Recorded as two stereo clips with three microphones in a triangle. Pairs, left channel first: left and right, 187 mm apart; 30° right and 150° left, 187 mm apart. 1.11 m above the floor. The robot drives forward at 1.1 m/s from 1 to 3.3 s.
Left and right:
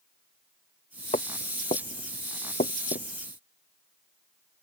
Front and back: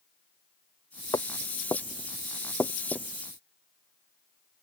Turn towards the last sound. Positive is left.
turn(degrees=55)